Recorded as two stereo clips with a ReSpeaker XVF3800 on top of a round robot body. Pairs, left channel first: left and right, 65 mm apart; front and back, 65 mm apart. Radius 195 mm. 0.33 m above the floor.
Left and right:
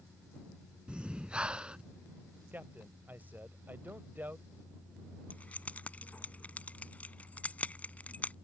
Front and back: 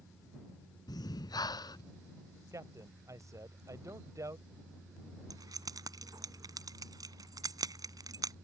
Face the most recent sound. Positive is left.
turn(degrees=160)